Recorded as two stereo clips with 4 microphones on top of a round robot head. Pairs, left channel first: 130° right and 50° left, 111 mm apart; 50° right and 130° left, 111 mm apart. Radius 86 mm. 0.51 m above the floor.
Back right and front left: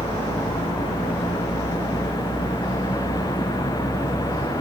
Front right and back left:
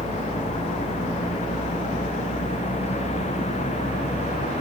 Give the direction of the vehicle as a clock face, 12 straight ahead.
2 o'clock.